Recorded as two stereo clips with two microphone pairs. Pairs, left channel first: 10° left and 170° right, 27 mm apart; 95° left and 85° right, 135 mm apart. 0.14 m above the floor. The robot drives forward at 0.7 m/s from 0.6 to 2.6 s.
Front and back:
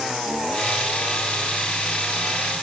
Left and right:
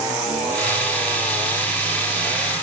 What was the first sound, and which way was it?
Only background noise.